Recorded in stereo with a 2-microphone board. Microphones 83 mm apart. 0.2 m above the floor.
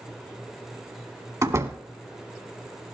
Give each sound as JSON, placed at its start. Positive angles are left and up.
{"t": 1.4, "sound": "a door slam", "side_deg": -35, "distance_m": 1.1}